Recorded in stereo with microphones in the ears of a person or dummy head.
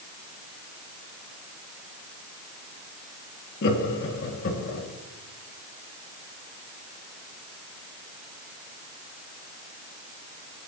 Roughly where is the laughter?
Left.